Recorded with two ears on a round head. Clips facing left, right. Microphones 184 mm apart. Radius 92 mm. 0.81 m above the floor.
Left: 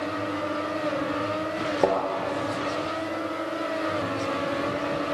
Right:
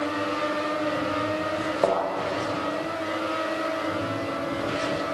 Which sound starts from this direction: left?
A thud, at 1.8 s.